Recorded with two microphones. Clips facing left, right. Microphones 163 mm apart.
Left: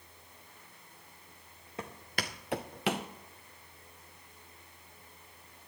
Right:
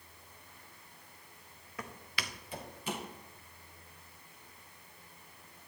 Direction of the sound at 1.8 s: 25° left (ahead or behind).